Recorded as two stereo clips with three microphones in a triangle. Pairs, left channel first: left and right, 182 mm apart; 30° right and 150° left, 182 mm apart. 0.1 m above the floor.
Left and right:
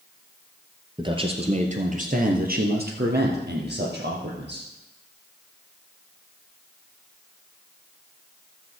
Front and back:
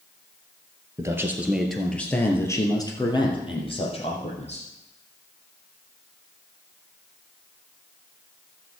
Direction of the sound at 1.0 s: 145° right.